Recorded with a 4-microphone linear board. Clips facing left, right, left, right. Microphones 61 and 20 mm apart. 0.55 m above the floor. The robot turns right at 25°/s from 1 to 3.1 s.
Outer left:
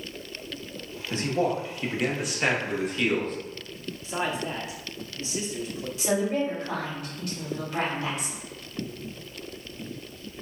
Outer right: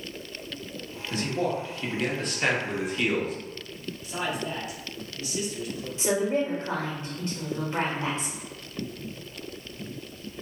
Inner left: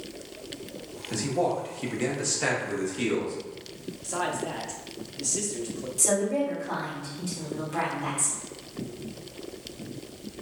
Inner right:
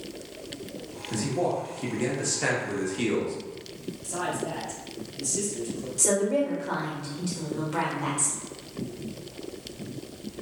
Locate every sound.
1.1 s a man speaking: 135° left, 1.0 m; by 3.4 s 175° right, 1.0 m
4.0 s a man speaking: 25° left (ahead or behind), 1.0 m
6.0 s a woman speaking: 30° right (ahead or behind), 1.9 m